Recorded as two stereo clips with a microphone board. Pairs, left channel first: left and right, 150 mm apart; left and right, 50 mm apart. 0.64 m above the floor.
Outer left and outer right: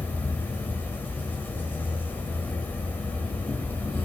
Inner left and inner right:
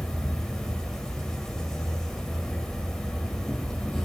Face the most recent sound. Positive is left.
turn(degrees=15)  # may be behind; listen again after turning